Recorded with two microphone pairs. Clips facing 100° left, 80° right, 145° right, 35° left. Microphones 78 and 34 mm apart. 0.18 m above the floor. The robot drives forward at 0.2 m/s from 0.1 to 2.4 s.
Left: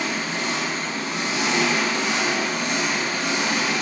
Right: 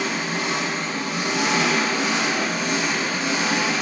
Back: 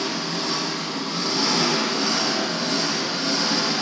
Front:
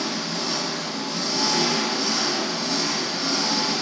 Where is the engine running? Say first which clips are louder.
Right 1 dB, back 1 dB; 150° right, 1.5 m; by 3.8 s 160° right, 1.7 m.